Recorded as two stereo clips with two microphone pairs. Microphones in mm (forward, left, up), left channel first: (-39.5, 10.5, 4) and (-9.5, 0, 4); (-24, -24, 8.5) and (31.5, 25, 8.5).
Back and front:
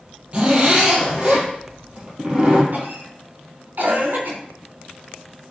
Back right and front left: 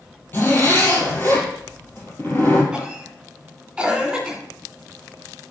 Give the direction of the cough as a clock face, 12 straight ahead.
1 o'clock.